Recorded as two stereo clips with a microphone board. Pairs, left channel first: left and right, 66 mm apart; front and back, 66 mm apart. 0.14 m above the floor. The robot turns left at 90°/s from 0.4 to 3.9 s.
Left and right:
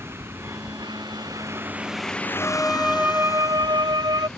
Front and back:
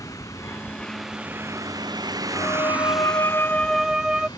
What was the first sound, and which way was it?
A vehicle, 35° right.